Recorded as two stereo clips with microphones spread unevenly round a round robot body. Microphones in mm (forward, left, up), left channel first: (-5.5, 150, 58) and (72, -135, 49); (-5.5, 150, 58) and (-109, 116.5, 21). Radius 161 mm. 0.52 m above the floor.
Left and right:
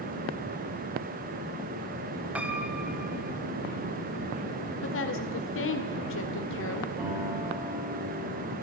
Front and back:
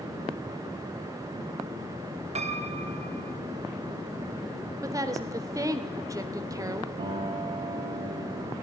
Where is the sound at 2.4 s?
160° right, 1.6 m.